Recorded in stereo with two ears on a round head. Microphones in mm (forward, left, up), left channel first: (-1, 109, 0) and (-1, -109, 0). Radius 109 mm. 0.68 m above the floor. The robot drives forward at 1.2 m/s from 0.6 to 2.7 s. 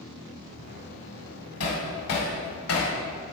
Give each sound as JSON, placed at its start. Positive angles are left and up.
{"t": 1.6, "sound": "hammering", "side_deg": 65, "distance_m": 1.8}